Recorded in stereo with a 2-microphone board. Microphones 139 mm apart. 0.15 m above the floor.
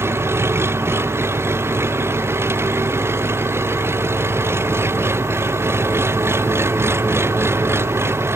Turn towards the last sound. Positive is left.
turn(degrees=-20)  # may be behind; listen again after turning